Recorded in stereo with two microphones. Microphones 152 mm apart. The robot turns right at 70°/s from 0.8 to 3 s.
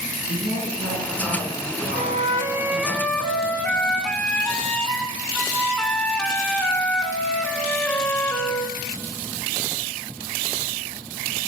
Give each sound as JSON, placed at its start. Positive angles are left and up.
{"t": 0.3, "sound": "a woman speaking", "azimuth_deg": -100, "distance_m": 3.0}
{"t": 1.9, "sound": "a flute", "azimuth_deg": -65, "distance_m": 0.6}